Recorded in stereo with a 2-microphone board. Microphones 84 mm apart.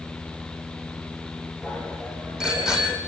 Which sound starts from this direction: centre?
A bicycle bell, at 1.6 s.